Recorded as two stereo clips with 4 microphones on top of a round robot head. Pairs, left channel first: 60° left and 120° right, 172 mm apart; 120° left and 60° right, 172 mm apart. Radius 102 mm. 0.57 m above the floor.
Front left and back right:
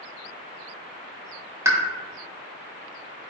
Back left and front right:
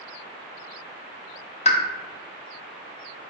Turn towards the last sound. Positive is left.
turn(degrees=165)